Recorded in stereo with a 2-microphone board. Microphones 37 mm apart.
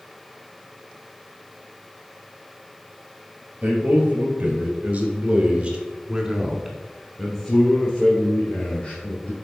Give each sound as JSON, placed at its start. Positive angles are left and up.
{"t": 3.6, "sound": "a man speaking", "side_deg": -40, "distance_m": 2.5}